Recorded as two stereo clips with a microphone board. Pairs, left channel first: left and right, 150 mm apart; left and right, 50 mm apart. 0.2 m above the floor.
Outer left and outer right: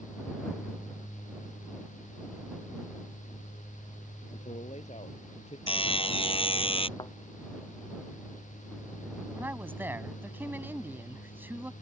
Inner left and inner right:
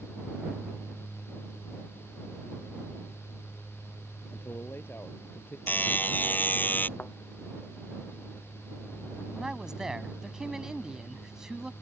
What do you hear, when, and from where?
4.3 s a man speaking: 50° left (ahead or behind); by 5.6 s 45° left (ahead or behind)
5.7 s a buzzer: 40° left (ahead or behind)
7.0 s a thud: 30° left (ahead or behind)
9.3 s a man speaking: 15° right (ahead or behind)